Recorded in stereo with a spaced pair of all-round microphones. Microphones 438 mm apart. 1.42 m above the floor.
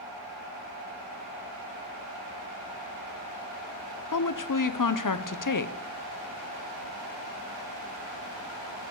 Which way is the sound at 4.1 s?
45° left (ahead or behind).